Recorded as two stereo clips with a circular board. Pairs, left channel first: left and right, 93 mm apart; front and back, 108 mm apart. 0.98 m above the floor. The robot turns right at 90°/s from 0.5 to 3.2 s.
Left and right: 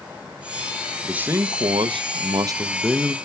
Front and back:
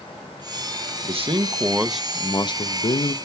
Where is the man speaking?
175° right, 0.7 m; by 3.1 s 20° left, 0.7 m.